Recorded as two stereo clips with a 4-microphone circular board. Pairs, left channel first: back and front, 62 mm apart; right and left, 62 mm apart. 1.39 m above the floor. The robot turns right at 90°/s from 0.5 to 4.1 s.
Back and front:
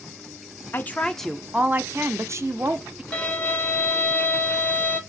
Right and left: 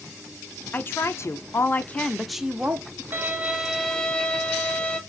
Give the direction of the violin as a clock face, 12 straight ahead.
8 o'clock.